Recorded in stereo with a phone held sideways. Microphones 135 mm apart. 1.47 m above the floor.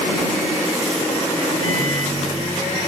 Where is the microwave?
70° right (ahead or behind).